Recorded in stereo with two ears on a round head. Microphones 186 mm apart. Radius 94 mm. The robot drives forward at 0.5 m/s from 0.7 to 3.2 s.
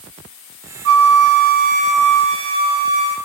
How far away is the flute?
About 0.5 m.